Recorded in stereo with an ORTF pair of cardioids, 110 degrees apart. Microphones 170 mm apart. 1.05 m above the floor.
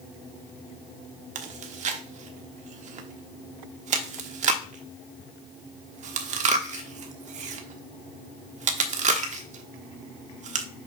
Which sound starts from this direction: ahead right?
Chewing, at 1.4 s.